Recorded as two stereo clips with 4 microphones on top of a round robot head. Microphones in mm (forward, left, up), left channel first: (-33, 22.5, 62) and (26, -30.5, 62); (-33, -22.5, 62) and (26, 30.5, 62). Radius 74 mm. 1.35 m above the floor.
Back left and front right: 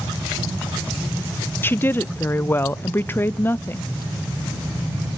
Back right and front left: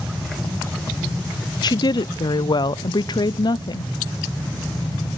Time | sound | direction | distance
1.6 | a woman speaking | 160° right | 0.5 m